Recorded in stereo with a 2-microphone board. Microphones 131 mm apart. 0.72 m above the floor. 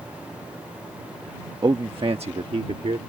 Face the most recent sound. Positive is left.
turn(degrees=-60)  # may be behind; listen again after turning